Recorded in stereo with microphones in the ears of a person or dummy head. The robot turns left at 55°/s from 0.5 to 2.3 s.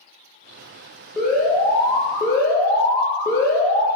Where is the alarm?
5° right (ahead or behind), 0.7 m; by 3.9 s 20° left (ahead or behind), 0.7 m.